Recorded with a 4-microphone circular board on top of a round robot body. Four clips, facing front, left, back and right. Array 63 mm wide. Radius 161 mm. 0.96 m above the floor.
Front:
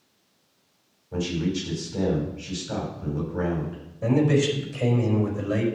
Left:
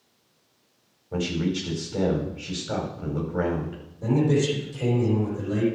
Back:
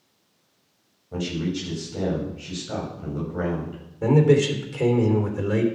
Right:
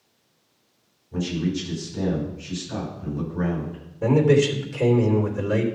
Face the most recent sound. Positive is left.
turn(degrees=-145)